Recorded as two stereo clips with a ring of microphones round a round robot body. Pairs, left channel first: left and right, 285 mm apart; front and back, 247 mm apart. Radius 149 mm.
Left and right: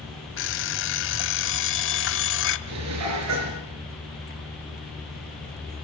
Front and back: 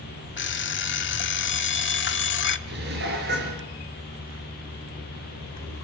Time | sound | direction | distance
0.4 | an alarm clock | 45° left | 1.3 m
2.7 | dishes clattering | 125° right | 5 m